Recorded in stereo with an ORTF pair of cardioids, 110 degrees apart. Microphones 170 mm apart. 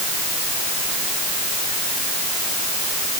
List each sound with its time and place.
Only background noise.